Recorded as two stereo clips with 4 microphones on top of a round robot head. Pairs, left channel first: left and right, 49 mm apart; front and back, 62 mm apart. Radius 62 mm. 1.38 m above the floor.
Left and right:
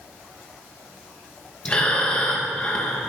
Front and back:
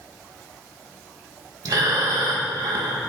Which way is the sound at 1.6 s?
155° left.